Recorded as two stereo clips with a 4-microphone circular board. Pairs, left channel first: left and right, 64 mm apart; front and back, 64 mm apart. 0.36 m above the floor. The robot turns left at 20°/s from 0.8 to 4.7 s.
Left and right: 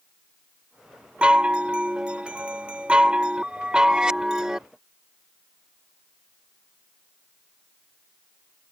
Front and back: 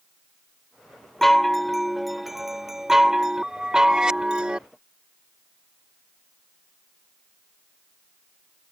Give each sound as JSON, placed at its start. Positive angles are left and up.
{"t": 1.2, "sound": "a chime", "azimuth_deg": -75}